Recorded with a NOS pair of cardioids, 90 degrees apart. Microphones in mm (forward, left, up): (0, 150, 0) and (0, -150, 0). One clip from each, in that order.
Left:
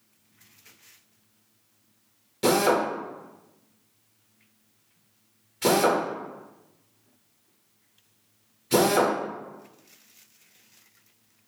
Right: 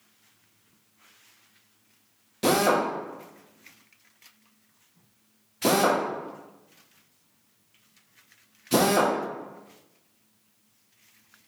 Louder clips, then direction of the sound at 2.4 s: Even; straight ahead.